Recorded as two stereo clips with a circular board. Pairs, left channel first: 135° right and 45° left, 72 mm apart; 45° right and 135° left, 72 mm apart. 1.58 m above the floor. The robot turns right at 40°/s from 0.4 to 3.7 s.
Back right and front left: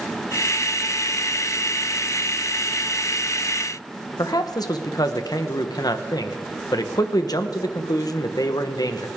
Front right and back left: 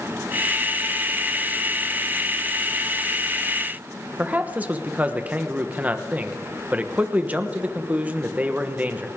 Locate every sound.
4.2 s a man speaking: 160° right, 1.1 m